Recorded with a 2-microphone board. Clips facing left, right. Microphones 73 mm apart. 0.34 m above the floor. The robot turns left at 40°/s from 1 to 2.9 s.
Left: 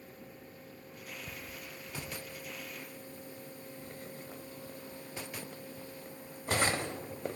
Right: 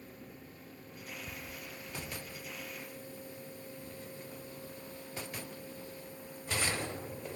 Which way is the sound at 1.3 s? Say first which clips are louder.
Even; 25° left (ahead or behind).